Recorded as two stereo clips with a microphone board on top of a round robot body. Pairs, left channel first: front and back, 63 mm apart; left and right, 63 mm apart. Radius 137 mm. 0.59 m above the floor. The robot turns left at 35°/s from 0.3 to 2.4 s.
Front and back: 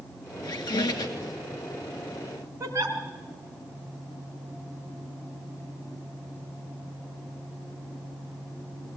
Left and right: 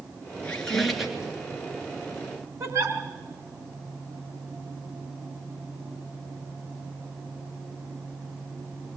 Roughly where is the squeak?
Ahead.